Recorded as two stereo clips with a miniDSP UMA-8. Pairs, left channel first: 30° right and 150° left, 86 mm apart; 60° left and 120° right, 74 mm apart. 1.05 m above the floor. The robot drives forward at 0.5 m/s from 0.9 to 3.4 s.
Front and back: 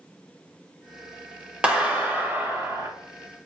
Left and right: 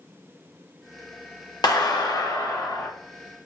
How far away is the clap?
About 1.3 m.